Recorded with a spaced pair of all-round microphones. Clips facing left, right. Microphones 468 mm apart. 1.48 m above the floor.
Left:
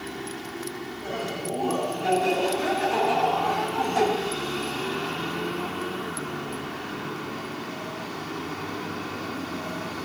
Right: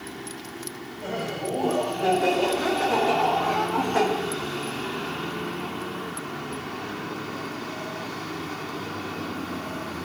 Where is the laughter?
85° right, 4.5 m; by 4.1 s 75° right (ahead or behind), 2.5 m.